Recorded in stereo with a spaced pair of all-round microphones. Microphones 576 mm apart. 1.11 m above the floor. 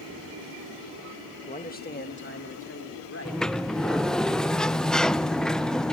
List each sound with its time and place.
1.5 s a man speaking: 10° left (ahead or behind), 1.7 m; by 4.2 s 25° left (ahead or behind), 5.5 m
3.2 s a sliding door: centre (ahead or behind), 0.6 m